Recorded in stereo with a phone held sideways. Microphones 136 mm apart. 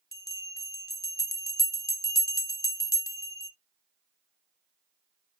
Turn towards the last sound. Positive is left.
turn(degrees=25)  # may be behind; listen again after turning